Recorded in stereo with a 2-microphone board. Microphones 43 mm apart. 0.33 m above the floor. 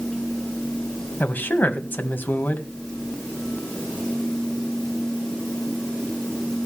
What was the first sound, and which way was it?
A man speaking, 45° left (ahead or behind).